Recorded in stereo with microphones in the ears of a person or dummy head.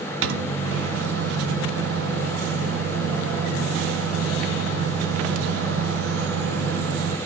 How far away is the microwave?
About 1.1 m.